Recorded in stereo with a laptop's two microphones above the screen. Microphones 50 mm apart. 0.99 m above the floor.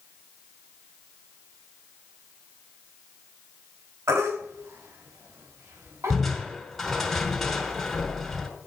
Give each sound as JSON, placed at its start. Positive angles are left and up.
{"t": 4.1, "sound": "a baby crying", "side_deg": -80, "distance_m": 3.0}
{"t": 6.1, "sound": "crushing", "side_deg": 5, "distance_m": 4.0}